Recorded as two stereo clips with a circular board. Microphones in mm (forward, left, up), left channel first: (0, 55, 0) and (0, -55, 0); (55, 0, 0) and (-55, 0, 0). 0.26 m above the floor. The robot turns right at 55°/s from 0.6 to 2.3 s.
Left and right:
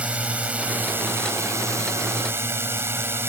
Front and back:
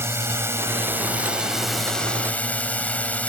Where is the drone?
150° right; by 3.3 s 60° right.